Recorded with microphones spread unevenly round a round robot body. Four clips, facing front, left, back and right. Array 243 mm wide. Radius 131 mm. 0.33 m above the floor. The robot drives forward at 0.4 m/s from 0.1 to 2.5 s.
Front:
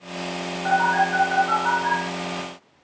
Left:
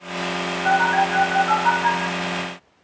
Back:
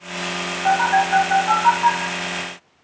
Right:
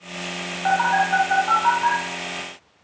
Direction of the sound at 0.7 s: 130° right.